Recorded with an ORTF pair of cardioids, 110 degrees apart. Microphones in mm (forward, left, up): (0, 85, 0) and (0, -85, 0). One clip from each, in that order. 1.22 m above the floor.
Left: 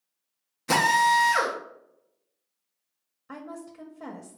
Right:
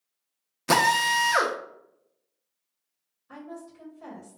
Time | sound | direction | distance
0.7 | a drill | 25° right | 0.7 m
3.3 | a woman speaking | 65° left | 0.8 m